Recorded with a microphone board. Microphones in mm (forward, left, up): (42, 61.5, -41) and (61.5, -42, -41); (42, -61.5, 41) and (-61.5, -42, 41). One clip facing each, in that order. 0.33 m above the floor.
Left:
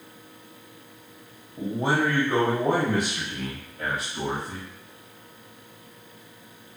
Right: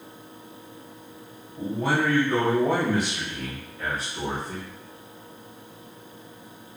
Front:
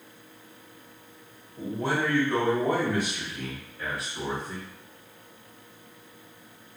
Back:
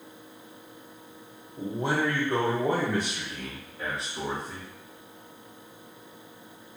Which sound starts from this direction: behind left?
A man speaking, at 1.6 s.